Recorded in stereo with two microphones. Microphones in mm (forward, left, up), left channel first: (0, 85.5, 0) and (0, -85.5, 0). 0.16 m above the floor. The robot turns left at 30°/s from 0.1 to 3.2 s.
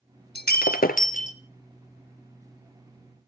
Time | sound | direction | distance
0.3 | breaking glass | 70° left (ahead or behind) | 1.0 m